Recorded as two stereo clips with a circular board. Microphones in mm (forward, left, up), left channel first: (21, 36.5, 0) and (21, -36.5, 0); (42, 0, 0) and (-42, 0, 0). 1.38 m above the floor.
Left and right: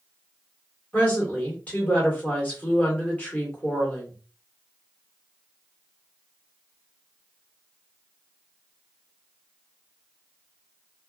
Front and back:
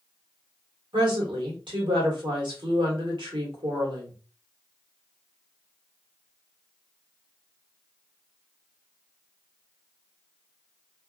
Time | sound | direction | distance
0.9 | a woman speaking | 160° left | 1.3 m